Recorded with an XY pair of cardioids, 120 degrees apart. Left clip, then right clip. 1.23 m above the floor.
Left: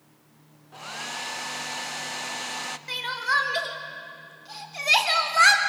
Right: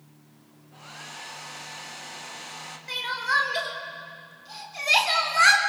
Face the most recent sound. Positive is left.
turn(degrees=10)